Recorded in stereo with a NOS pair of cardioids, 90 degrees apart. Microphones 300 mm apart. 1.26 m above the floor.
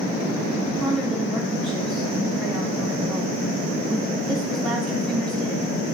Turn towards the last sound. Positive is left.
turn(degrees=0)